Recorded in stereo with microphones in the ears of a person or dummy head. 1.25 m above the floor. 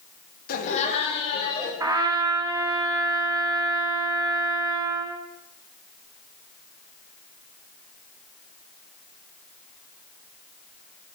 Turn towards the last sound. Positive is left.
turn(degrees=-20)  # may be behind; listen again after turning